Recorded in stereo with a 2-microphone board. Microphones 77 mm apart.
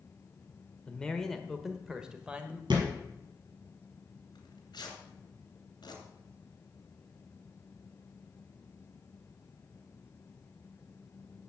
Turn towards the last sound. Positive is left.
turn(degrees=65)  # may be behind; listen again after turning